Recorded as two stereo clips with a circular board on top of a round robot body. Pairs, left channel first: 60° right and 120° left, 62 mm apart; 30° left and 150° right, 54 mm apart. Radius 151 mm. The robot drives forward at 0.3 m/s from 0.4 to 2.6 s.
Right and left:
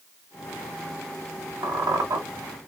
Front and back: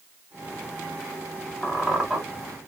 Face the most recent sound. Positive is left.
turn(degrees=135)